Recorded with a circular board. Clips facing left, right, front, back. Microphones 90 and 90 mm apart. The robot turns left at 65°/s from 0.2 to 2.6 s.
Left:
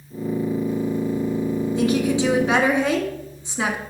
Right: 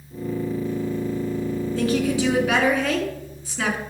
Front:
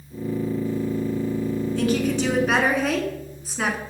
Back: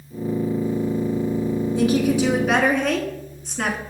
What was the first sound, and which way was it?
A woman speaking, 135° left.